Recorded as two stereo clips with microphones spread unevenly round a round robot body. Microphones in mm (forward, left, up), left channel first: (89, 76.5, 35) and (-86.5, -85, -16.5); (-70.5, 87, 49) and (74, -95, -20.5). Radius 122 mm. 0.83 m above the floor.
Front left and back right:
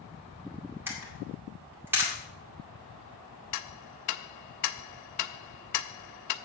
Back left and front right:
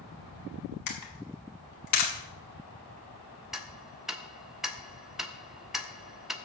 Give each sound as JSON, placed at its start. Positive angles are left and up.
{"t": 0.9, "sound": "a camera shutter", "azimuth_deg": 145, "distance_m": 2.0}
{"t": 3.5, "sound": "ticking", "azimuth_deg": 30, "distance_m": 0.6}